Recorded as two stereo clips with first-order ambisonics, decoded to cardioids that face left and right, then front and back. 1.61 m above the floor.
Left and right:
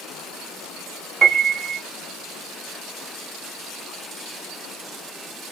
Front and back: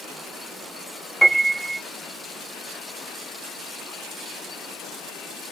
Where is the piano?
75° right, 0.9 m.